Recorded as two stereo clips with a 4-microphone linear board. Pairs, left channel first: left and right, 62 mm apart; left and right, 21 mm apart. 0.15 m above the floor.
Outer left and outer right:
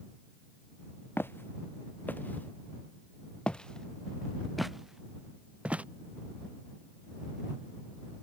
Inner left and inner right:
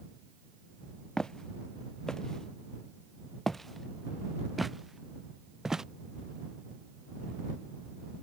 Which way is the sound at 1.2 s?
40° left (ahead or behind).